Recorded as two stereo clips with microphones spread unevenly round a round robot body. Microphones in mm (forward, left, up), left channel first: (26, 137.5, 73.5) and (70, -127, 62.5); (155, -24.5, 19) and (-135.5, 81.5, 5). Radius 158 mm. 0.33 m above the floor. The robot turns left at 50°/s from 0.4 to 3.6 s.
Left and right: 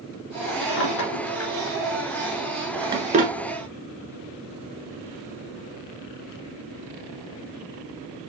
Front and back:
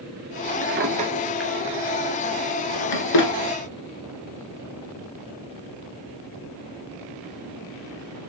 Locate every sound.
0.6 s a drawer: 110° left, 1.2 m; by 3.3 s 25° right, 1.2 m